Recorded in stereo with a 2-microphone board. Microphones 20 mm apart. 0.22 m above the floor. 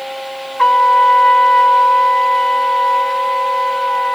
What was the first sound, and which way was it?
A trumpet, 30° left (ahead or behind).